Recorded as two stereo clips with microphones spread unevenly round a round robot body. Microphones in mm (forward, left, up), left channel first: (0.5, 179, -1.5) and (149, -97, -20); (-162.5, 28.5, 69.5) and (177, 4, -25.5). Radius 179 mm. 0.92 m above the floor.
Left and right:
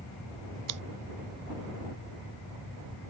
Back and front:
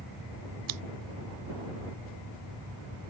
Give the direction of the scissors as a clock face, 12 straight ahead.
1 o'clock.